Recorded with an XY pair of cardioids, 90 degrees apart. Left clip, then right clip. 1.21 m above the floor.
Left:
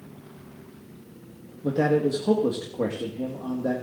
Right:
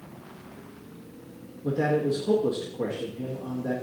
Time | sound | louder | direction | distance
1.6 | a man speaking | left 2 dB | 60° left | 1.7 m